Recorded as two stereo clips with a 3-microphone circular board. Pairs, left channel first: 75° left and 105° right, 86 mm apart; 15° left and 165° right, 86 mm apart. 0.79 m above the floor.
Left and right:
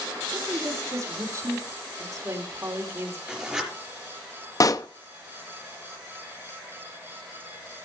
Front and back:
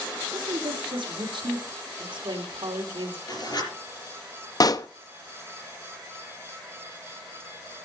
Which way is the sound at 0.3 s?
155° right.